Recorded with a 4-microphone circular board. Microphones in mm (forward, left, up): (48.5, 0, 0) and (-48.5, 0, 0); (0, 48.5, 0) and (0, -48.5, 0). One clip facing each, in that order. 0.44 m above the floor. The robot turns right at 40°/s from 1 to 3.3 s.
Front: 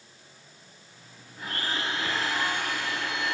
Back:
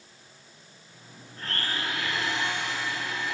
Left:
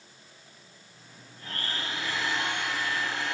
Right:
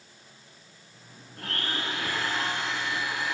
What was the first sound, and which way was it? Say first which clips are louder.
A blender: front 1 dB, right 3 dB; 85° right.